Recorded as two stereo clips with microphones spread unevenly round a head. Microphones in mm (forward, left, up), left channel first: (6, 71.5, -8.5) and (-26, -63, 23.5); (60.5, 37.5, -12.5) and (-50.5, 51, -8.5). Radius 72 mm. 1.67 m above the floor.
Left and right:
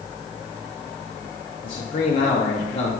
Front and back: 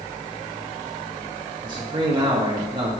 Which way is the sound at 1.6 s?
125° left.